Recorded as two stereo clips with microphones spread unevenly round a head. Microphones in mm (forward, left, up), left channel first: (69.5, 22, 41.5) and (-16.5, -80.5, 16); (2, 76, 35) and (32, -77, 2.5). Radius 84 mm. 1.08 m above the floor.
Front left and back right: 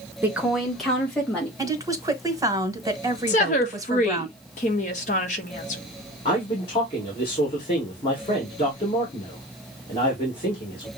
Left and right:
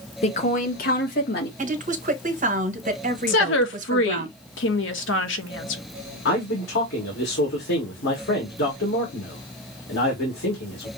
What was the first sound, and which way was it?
A woman speaking, 155° left.